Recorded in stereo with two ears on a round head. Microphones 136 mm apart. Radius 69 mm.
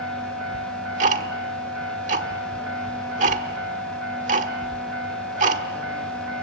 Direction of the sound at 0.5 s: 50° right (ahead or behind).